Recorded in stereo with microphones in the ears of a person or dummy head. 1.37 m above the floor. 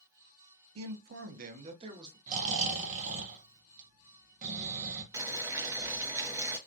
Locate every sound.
0.8 s a man speaking: 80° right, 0.5 m; by 2.2 s 25° right (ahead or behind), 1.0 m
2.3 s snoring: 40° right (ahead or behind), 0.7 m
5.1 s boiling: 20° right (ahead or behind), 0.6 m